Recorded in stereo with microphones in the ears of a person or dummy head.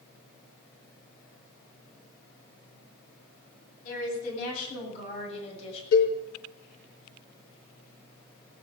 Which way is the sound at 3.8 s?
50° left (ahead or behind).